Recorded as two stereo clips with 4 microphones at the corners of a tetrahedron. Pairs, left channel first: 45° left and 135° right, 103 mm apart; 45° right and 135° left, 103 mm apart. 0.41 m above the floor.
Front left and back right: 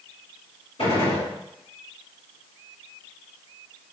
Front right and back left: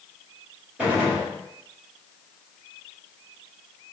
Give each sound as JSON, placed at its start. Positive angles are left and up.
{"t": 0.8, "sound": "a gunshot", "azimuth_deg": 55, "distance_m": 1.9}